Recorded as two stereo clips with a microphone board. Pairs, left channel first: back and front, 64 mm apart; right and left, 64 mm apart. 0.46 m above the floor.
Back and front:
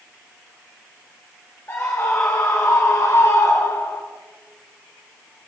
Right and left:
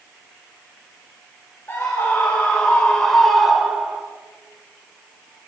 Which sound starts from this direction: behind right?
A scream, at 1.7 s.